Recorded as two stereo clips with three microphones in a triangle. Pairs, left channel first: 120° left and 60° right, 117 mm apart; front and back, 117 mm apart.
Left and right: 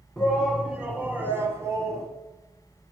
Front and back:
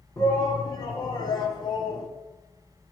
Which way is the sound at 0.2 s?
35° left.